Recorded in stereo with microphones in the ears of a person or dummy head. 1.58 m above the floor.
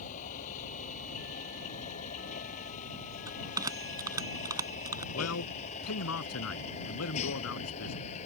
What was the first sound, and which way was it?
A vehicle, 40° left (ahead or behind).